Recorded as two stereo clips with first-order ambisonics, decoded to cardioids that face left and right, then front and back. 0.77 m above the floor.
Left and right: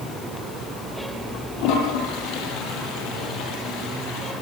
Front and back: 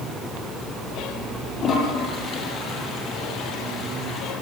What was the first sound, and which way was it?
A toilet flushing, 60° left.